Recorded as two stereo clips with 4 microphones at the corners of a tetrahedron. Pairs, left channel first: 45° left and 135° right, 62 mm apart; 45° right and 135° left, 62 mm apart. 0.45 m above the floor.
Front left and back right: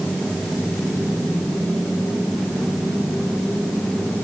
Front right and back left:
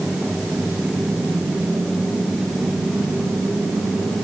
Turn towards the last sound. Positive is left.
No sound to turn to.